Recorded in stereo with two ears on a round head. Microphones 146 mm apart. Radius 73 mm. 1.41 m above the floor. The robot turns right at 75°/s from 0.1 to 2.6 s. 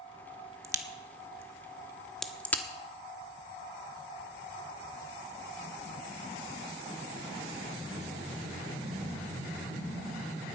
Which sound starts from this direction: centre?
A crack, at 0.6 s.